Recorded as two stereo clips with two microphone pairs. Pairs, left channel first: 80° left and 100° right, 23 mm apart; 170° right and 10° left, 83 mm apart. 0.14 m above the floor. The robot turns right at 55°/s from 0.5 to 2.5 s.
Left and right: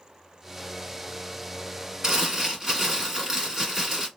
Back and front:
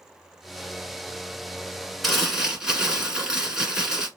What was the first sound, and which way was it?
Crumpling, 85° right.